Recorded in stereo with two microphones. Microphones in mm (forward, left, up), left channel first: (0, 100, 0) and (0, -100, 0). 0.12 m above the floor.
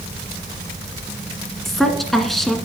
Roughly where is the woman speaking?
Centre.